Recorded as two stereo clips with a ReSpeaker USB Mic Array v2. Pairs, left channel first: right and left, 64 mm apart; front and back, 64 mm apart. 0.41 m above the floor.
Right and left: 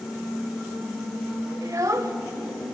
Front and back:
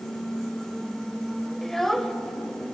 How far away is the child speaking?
About 0.9 m.